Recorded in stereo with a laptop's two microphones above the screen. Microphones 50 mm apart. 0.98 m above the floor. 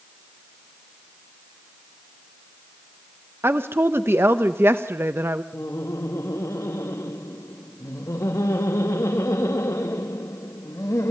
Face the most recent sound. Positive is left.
turn(degrees=80)